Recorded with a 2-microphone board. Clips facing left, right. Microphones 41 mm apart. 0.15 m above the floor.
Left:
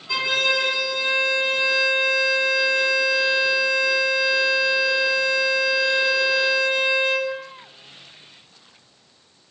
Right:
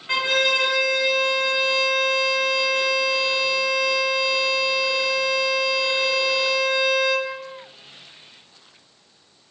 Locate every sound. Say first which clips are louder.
0.1 s a violin: right 1 dB; 50° right (ahead or behind), 1.1 m